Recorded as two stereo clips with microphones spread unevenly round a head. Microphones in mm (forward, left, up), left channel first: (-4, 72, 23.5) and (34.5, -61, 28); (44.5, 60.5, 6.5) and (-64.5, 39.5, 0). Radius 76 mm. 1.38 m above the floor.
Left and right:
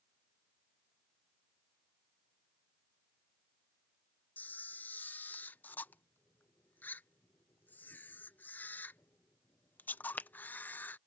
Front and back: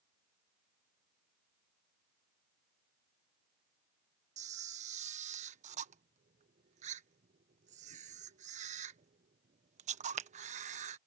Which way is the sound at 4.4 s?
175° right.